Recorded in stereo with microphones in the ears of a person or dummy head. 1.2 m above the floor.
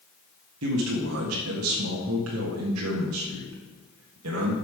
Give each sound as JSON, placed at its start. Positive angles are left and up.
{"t": 0.6, "sound": "a man speaking", "side_deg": -80, "distance_m": 1.6}